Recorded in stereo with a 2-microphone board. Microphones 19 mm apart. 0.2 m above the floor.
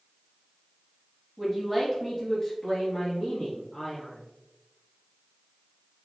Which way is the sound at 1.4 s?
Centre (ahead or behind).